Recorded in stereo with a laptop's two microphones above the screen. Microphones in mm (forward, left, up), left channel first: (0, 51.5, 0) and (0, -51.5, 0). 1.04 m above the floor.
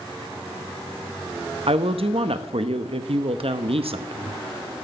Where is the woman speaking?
70° right (ahead or behind), 0.9 m.